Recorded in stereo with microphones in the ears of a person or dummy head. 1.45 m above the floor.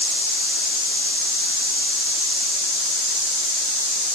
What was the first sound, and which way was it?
Only background noise.